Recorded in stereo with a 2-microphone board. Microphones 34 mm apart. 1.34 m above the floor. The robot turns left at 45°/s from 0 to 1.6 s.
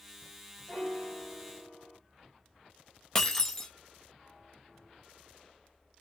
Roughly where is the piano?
Ahead left.